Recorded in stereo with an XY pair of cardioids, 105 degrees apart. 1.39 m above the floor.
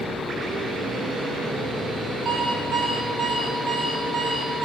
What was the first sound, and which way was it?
An alarm clock, 35° right.